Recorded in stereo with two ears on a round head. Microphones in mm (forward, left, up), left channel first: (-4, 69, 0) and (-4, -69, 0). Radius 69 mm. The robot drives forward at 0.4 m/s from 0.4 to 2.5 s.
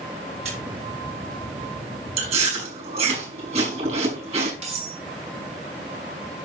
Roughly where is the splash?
Right.